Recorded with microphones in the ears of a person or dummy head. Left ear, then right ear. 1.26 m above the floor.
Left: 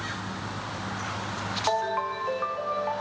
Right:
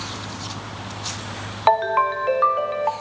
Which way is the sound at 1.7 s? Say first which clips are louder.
Right 10 dB; 35° right (ahead or behind).